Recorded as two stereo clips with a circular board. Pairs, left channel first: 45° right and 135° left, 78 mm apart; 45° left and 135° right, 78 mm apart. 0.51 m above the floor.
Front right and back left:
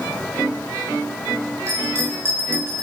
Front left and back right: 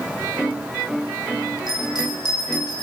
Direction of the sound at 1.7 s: 80° left.